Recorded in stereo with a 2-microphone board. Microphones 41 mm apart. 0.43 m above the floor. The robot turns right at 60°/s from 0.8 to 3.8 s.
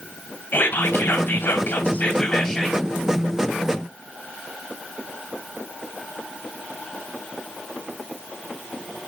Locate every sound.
0.5 s whispering: 70° left, 1.9 m; by 2.9 s 165° right, 1.9 m